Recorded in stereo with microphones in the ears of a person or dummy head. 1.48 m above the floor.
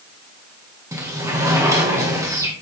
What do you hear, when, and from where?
0.9 s a sliding door: 20° right (ahead or behind), 2 m